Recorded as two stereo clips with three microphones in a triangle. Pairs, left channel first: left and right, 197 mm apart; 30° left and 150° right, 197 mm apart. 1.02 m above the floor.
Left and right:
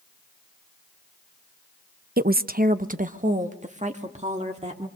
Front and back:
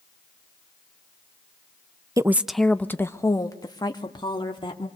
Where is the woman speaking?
80° right, 0.6 m; by 4.9 s 35° right, 2.5 m.